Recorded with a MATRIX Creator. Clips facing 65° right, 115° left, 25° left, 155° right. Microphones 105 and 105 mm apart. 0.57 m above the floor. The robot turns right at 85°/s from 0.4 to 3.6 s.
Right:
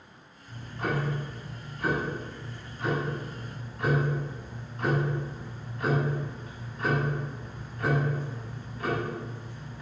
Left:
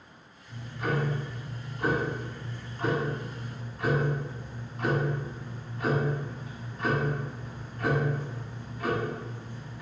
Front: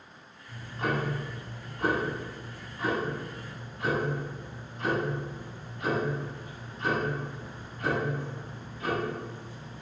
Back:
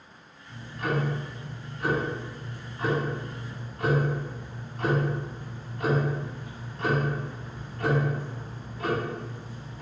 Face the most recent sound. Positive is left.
turn(degrees=-155)